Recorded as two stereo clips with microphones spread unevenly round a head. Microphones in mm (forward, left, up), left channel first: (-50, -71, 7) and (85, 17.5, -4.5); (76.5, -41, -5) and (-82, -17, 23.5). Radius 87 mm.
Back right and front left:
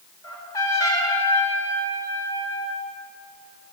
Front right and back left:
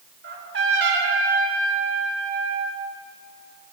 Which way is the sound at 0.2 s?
140° left.